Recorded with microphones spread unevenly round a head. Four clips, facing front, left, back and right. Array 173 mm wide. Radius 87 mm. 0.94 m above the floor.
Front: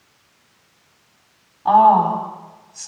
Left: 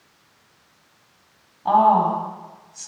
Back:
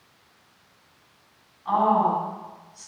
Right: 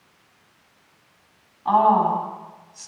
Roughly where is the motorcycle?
I don't hear a motorcycle.